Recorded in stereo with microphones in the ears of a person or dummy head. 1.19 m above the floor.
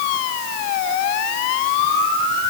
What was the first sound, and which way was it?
Only background noise.